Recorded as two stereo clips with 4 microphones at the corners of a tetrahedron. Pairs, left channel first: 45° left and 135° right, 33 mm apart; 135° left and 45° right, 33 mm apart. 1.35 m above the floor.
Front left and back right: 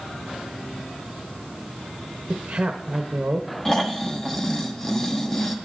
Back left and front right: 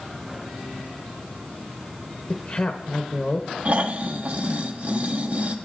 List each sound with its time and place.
2.3 s a woman speaking: straight behind, 0.7 m
3.6 s snoring: 25° right, 0.8 m